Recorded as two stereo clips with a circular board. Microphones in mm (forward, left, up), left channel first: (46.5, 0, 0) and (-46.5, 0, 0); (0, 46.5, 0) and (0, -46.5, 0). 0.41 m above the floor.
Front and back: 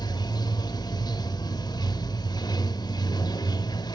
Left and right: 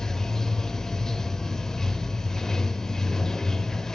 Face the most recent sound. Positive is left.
turn(degrees=5)